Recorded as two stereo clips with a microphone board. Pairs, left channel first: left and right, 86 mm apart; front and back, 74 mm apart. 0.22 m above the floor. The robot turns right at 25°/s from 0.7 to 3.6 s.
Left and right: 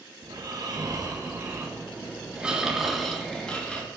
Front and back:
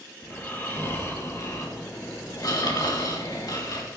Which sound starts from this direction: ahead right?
Snoring, at 0.2 s.